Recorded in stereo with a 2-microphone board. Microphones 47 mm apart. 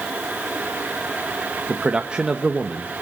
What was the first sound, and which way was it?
A man speaking, 20° right (ahead or behind).